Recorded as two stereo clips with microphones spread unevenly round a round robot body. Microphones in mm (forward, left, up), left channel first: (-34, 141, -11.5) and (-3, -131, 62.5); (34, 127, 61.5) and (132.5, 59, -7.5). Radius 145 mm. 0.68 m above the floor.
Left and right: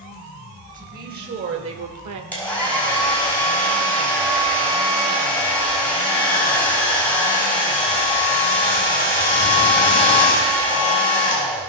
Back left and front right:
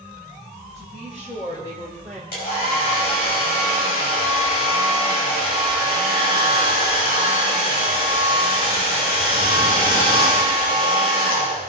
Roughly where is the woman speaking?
Behind right.